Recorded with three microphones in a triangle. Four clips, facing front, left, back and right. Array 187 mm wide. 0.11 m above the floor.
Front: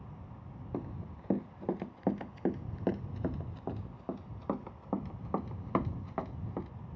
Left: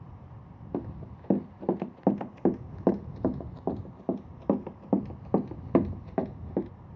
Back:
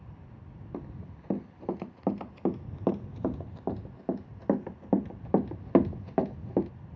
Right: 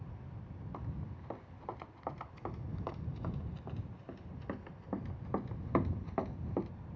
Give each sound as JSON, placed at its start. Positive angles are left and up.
{"t": 0.7, "sound": "running footsteps", "azimuth_deg": 90}